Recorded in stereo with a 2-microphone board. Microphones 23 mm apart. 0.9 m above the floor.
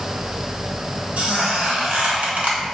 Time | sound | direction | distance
1.2 | a squeak | 75° right (ahead or behind) | 0.9 m